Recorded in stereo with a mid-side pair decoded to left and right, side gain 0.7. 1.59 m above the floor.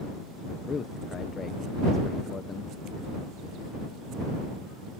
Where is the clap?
I don't hear a clap.